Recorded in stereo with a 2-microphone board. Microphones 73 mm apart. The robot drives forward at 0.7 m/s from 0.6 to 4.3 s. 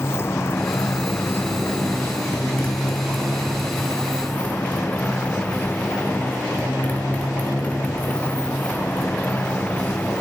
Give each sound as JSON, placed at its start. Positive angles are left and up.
{"t": 0.0, "sound": "a motorcycle", "side_deg": 35}